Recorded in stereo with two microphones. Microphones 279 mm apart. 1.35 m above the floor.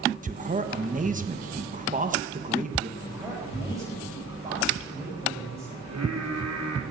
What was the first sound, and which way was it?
A man speaking, 30° right (ahead or behind).